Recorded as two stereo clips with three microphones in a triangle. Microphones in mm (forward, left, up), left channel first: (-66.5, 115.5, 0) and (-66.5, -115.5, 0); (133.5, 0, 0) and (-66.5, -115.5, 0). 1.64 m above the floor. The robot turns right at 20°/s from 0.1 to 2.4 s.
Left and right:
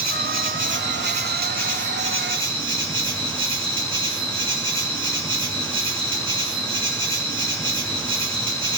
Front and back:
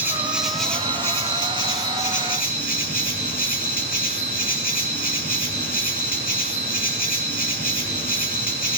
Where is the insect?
70° right, 3 m; by 8.8 s 25° right, 3 m.